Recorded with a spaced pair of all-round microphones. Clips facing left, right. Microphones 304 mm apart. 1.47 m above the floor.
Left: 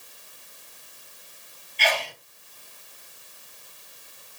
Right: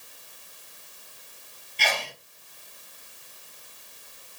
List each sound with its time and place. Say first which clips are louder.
1.8 s a sneeze: left 4 dB; 55° right (ahead or behind), 1.6 m